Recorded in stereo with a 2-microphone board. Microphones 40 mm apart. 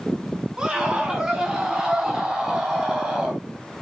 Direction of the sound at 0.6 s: 25° right (ahead or behind).